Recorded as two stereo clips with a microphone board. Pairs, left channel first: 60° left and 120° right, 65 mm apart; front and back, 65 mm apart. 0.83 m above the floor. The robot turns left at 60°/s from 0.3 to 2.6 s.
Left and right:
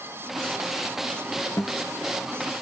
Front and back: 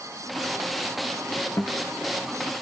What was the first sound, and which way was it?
A guitar, 25° left.